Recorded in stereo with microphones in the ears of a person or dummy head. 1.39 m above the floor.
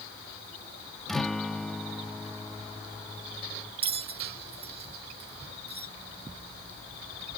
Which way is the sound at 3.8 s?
30° right (ahead or behind).